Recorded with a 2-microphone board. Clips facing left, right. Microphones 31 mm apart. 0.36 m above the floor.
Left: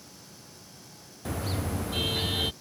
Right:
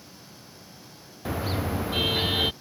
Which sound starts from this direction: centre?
A car horn, at 1.2 s.